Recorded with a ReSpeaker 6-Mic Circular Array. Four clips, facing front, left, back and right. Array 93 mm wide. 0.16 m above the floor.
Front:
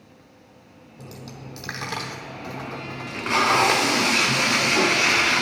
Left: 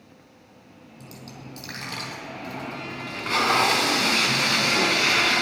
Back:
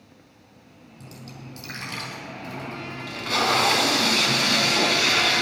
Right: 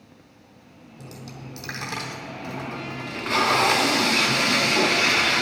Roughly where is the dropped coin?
Ahead.